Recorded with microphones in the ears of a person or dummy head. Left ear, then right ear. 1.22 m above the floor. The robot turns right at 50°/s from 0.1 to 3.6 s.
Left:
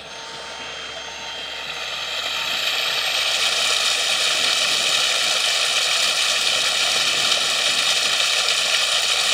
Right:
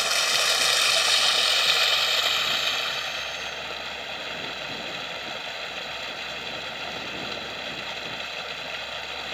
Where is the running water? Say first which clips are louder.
Right 11 dB; 120° right; by 9.3 s 55° left.